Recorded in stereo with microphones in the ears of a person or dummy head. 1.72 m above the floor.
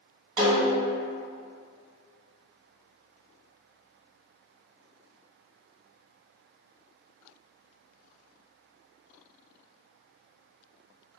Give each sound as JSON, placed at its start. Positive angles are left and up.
{"t": 0.4, "sound": "a snare drum", "side_deg": -30, "distance_m": 1.0}